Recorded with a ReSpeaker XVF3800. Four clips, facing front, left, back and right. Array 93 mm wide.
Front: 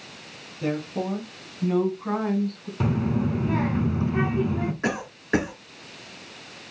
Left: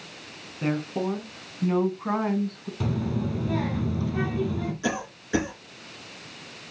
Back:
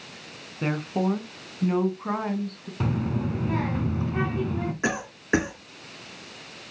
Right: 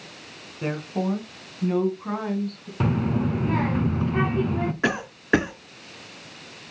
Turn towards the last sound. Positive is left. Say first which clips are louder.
# right 4 dB, even
turn(degrees=-105)